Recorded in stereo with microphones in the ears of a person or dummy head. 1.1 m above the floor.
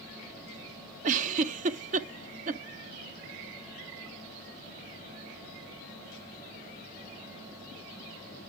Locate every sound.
1.0 s a giggle: 45° right (ahead or behind), 0.8 m